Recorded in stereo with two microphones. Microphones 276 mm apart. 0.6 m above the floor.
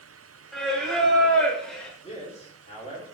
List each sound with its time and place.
0.5 s singing: centre (ahead or behind), 0.9 m
2.0 s a man speaking: 20° left (ahead or behind), 1.9 m